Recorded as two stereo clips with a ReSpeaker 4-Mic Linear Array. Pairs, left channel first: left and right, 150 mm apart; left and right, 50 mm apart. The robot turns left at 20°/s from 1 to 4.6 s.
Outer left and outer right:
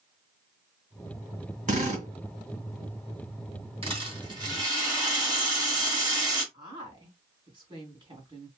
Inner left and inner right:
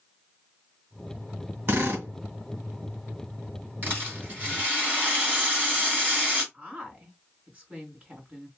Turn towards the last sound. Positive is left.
turn(degrees=-30)  # may be behind; listen again after turning